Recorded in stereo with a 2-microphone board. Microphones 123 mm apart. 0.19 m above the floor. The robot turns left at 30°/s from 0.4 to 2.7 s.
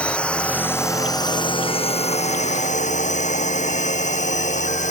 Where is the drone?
170° left; by 4.9 s 100° left.